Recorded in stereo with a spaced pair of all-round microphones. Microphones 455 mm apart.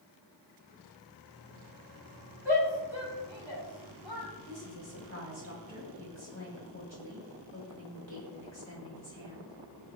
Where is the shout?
75° left (ahead or behind), 6 m; by 4.3 s 65° left (ahead or behind), 6.5 m.